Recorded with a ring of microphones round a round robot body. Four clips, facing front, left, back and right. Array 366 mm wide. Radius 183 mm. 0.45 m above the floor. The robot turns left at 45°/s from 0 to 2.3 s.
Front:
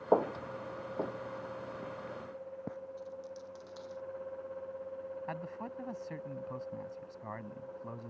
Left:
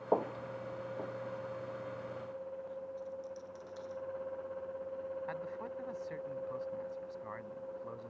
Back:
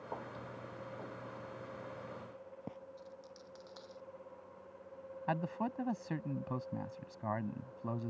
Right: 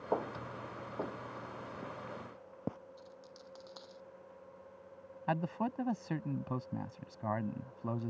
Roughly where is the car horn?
I don't hear a car horn.